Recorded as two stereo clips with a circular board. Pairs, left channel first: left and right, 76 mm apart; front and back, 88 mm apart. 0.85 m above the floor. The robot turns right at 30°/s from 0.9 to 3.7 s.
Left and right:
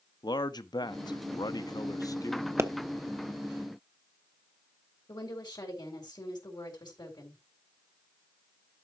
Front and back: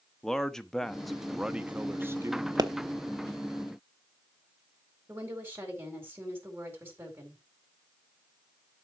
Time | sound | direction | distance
0.2 | a man speaking | 85° left | 0.9 m
2.6 | a pop | 140° right | 0.9 m
5.1 | a woman speaking | 115° left | 4 m